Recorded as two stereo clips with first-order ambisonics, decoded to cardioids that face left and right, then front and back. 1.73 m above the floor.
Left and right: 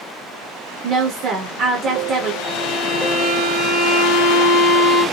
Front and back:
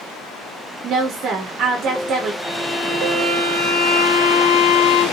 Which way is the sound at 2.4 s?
45° right.